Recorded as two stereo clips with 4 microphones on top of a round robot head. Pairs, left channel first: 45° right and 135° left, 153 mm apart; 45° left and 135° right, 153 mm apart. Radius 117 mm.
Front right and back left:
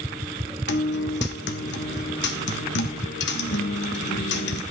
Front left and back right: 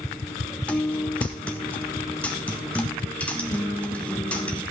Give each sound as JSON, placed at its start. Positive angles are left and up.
{"t": 0.7, "sound": "a guitar", "azimuth_deg": -40, "distance_m": 0.8}